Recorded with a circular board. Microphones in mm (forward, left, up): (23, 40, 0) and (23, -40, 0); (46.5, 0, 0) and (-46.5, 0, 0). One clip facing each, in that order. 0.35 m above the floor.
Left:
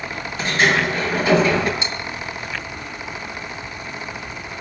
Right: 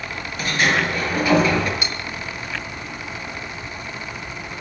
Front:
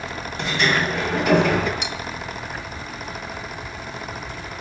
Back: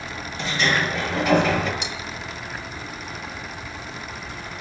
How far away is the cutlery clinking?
About 1.3 m.